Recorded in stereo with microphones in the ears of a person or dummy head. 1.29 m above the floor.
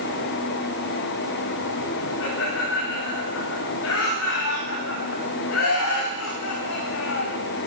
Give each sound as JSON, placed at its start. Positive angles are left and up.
{"t": 2.2, "sound": "laughter", "side_deg": 75, "distance_m": 3.5}